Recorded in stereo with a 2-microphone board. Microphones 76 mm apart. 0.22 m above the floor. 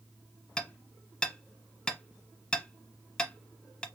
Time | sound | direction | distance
0.6 | hammering | 10° left (ahead or behind) | 1.2 m